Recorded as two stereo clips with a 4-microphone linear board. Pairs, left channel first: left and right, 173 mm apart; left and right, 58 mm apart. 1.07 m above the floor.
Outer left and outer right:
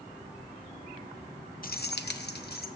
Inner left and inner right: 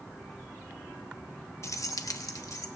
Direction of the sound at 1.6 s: 55° left (ahead or behind).